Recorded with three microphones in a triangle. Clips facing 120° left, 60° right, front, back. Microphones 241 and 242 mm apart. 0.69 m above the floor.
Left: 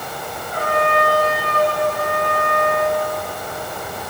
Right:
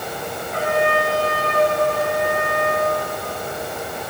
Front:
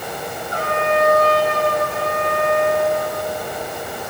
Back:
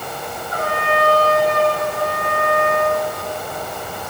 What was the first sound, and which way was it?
A trumpet, 60° right.